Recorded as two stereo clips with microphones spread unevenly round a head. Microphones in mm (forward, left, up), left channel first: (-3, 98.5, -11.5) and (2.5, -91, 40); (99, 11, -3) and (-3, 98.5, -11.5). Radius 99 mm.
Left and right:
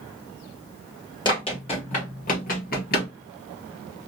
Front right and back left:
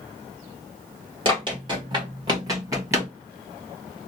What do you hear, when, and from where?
1.2 s running footsteps: 165° left, 1.6 m; by 3.1 s 85° left, 1.5 m